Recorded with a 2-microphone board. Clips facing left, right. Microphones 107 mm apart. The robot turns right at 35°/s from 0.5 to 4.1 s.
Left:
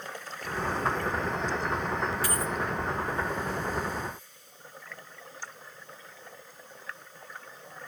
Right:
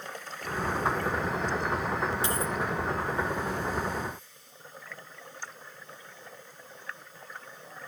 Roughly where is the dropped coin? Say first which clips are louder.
Right 1 dB; right.